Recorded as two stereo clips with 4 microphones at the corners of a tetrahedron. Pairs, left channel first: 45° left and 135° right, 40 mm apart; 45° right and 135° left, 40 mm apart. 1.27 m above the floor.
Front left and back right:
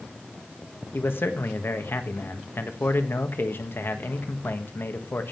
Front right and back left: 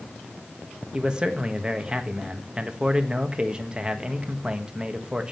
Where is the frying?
No frying in this recording.